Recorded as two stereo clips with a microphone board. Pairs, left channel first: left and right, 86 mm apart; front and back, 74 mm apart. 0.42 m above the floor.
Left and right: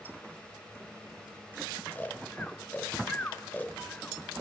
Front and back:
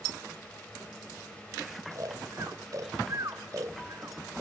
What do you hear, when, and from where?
1.9 s snoring: 155° left, 1.0 m